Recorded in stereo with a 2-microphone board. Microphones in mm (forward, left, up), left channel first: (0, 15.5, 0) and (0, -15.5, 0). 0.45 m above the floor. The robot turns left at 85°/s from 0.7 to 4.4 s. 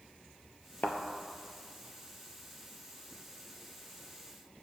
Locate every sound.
0.8 s a thud: 65° left (ahead or behind), 0.9 m; by 1.0 s 70° left (ahead or behind), 0.9 m